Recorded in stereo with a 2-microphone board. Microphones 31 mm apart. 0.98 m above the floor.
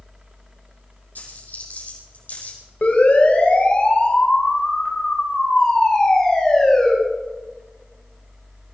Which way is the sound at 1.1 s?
70° left (ahead or behind).